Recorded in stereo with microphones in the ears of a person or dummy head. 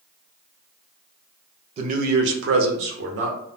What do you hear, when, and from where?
1.8 s a man speaking: 40° right (ahead or behind), 0.5 m; by 3.4 s 65° right (ahead or behind), 1.1 m